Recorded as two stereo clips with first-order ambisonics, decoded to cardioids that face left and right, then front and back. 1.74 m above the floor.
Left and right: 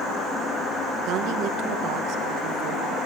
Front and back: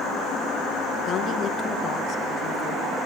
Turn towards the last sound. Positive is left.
turn(degrees=-55)